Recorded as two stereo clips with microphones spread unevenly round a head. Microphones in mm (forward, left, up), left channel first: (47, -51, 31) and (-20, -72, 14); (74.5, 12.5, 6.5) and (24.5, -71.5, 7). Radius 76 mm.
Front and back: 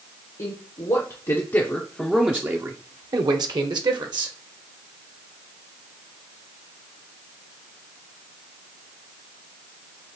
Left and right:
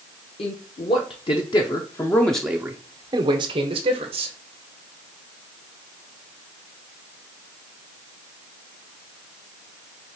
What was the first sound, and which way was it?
A man speaking, 40° left.